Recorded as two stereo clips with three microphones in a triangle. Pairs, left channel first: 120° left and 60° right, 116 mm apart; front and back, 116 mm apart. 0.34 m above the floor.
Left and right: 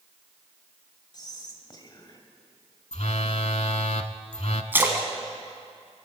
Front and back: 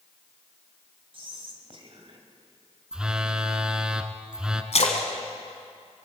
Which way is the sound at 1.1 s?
160° left.